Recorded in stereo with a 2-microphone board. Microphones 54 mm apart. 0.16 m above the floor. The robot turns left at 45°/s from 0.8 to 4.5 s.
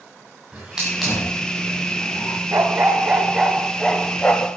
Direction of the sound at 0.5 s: 10° right (ahead or behind).